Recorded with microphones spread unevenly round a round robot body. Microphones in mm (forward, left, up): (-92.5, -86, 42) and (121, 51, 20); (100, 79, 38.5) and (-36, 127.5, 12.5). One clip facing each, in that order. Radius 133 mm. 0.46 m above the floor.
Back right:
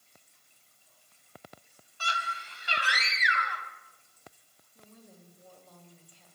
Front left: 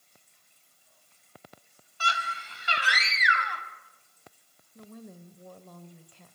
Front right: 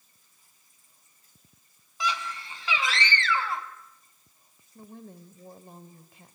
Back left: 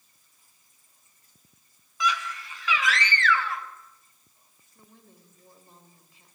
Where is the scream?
45° left, 3 m.